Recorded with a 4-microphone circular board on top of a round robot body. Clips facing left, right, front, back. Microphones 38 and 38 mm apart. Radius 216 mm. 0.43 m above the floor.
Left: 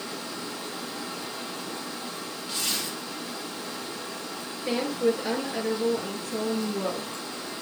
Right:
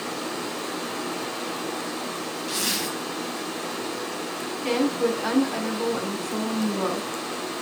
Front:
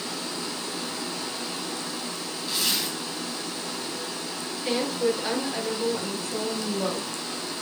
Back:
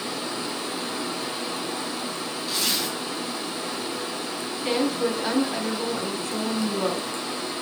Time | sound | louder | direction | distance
0.0 | running water | right 5 dB, back 3 dB | 110° right | 2.5 m
2.5 | a zipper | right 3 dB, even | 85° right | 5.5 m
4.6 | a woman speaking | right 2 dB, back 1 dB | 105° right | 5 m